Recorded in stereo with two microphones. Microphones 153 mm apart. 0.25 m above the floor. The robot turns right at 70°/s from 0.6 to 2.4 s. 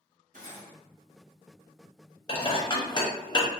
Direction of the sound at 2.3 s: 30° left (ahead or behind).